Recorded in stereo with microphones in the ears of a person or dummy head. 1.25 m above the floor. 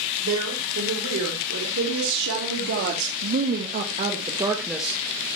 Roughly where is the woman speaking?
Right.